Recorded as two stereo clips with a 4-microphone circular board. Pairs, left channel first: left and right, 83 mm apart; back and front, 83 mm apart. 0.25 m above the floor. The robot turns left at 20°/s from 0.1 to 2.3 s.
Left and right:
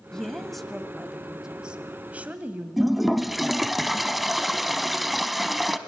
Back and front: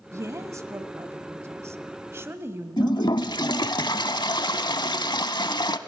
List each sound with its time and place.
0.1 s a woman speaking: 10° left, 1.2 m; by 3.3 s 35° right, 1.2 m
2.8 s a toilet flushing: straight behind, 0.7 m